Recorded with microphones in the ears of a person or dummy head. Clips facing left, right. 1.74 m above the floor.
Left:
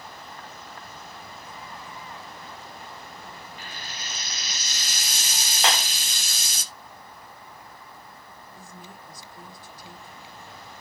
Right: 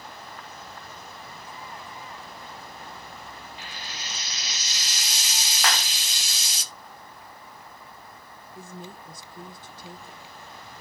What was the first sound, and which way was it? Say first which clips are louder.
Frying: even; 45° left (ahead or behind).